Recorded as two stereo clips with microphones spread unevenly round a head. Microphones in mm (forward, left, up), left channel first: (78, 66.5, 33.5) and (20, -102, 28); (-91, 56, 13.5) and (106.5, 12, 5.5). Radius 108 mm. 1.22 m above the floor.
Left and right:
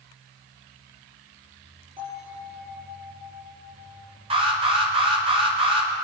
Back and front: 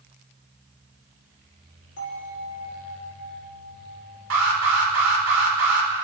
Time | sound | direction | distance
2.0 | a bell | 175° right | 4.5 m
4.3 | an alarm | 50° right | 3 m